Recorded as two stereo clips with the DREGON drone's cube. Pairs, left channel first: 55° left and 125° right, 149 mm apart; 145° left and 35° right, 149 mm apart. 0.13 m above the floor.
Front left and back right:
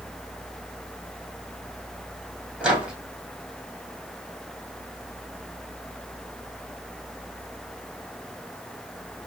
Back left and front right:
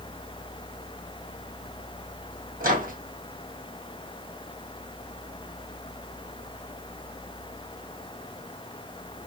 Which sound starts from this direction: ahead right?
A microwave, at 2.6 s.